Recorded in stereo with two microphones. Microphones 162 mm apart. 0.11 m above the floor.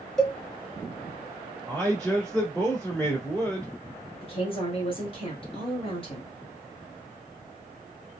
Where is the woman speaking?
35° left (ahead or behind), 1.5 m.